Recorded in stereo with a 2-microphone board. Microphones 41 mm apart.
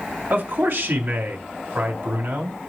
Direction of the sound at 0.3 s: 65° right (ahead or behind).